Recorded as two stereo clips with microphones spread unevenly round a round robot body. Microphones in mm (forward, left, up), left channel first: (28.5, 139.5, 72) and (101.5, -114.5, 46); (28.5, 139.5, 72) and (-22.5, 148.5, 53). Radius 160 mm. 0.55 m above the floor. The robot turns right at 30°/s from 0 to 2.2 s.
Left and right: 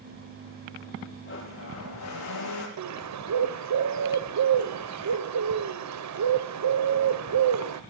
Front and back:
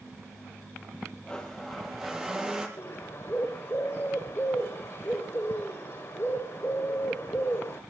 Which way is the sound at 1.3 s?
60° left.